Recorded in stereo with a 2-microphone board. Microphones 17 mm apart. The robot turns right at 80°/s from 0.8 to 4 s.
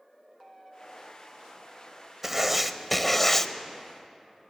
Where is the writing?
15° right (ahead or behind), 0.8 m; by 3.5 s 20° left (ahead or behind), 0.8 m.